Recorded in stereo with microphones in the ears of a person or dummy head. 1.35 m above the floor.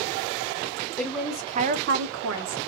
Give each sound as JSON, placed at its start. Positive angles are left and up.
{"t": 1.0, "sound": "a woman speaking", "side_deg": 15, "distance_m": 0.6}